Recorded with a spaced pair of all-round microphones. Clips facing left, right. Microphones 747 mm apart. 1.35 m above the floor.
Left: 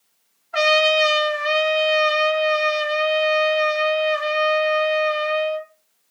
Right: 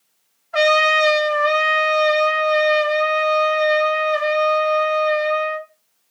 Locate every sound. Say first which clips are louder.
0.5 s a trumpet: right 1 dB; 10° right (ahead or behind), 0.6 m